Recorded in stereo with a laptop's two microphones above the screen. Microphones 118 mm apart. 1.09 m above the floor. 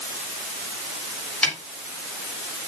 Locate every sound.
1.4 s a snare drum: 10° left (ahead or behind), 3.5 m